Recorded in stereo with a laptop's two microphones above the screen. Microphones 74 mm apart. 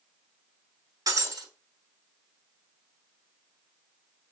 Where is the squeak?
No squeak in this recording.